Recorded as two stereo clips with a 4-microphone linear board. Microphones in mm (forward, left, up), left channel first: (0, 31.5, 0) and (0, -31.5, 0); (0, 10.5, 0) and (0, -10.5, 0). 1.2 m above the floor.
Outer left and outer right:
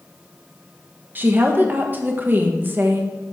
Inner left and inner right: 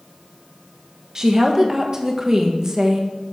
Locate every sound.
1.1 s a woman speaking: 30° right (ahead or behind), 1.2 m